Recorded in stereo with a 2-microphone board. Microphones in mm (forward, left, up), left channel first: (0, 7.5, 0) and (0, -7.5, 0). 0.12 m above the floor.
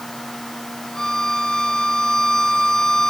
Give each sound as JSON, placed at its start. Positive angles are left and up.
{"t": 0.9, "sound": "a violin", "side_deg": 50, "distance_m": 1.4}